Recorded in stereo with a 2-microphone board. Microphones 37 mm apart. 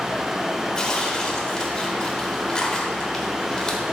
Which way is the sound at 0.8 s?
20° left (ahead or behind).